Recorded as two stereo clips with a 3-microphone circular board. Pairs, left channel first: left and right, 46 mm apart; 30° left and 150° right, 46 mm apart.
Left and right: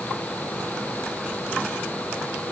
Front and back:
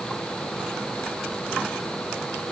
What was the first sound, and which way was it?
Only background noise.